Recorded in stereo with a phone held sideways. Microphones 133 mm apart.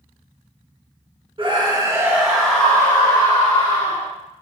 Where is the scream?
40° right (ahead or behind), 1.3 m; by 4.1 s 45° left (ahead or behind), 2.0 m.